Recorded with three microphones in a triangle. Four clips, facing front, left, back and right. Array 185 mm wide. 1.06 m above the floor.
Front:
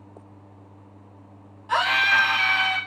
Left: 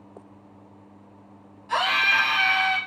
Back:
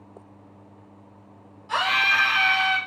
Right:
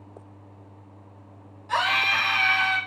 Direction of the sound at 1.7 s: 5° left.